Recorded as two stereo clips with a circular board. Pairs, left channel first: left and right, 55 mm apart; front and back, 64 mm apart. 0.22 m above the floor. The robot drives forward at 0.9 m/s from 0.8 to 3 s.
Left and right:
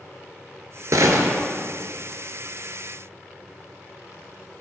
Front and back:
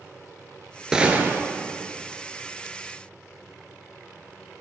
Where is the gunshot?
100° right, 0.8 m; by 1.4 s 130° right, 1.0 m.